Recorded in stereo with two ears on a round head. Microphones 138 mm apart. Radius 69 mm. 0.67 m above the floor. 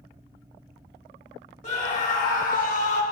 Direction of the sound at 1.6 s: 50° left (ahead or behind).